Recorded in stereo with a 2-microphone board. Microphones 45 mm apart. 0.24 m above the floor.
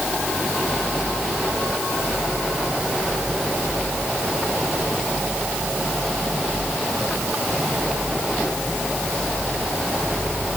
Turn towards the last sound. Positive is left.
No sound to turn to.